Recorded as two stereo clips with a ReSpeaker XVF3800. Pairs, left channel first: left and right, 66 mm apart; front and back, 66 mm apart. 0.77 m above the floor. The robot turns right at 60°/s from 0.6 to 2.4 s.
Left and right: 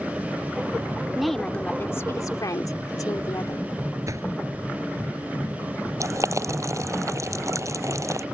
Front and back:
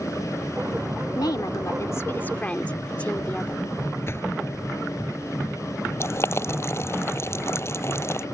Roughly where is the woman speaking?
Ahead.